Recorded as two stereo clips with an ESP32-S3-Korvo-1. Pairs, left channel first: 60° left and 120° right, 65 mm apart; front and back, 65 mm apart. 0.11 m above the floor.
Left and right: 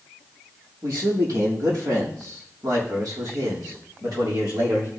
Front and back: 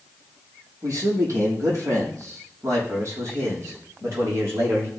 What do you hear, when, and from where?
0.8 s a man speaking: 145° right, 3 m; by 4.9 s 135° right, 5.5 m